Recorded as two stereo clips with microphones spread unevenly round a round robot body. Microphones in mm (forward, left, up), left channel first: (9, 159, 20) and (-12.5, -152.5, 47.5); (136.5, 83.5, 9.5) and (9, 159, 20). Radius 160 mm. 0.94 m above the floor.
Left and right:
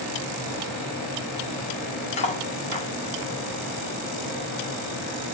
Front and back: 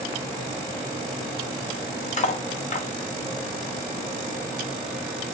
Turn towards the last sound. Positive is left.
turn(degrees=15)